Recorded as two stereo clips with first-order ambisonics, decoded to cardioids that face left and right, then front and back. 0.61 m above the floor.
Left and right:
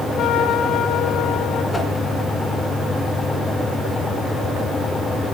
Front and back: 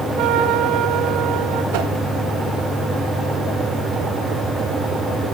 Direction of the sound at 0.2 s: 140° left.